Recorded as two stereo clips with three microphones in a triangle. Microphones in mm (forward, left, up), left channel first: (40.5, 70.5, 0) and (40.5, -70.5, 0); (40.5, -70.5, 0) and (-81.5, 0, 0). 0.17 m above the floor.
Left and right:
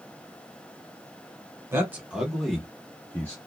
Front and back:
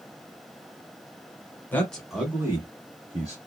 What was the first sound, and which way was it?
A man speaking, 75° right.